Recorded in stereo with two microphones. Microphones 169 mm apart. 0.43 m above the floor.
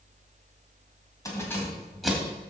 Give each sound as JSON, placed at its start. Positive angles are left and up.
{"t": 1.2, "sound": "keys jangling", "side_deg": 20, "distance_m": 2.5}